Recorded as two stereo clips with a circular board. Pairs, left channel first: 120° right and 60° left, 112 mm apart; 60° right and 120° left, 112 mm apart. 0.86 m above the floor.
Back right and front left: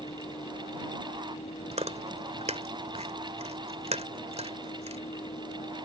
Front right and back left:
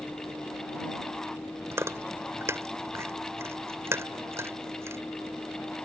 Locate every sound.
0.0 s a vehicle: 130° right; by 5.8 s 135° right
1.7 s chewing: 55° left